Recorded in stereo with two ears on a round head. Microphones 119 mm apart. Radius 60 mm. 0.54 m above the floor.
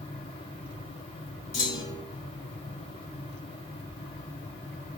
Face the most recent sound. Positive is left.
turn(degrees=55)  # may be behind; listen again after turning